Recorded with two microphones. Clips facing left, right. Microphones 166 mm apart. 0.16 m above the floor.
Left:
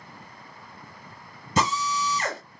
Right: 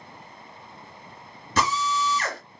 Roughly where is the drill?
Left.